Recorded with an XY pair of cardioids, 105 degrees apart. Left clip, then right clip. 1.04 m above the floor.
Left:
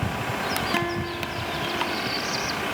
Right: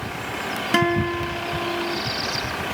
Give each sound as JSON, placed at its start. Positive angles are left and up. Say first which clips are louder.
{"t": 0.7, "sound": "a guitar", "louder": "right 6 dB", "azimuth_deg": -50}